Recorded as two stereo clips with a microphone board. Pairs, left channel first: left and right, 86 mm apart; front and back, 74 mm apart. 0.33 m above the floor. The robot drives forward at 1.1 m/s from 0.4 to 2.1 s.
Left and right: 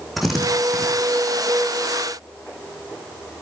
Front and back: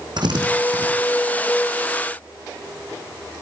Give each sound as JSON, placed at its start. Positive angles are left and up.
{"t": 0.2, "sound": "a drill", "azimuth_deg": 180, "distance_m": 9.0}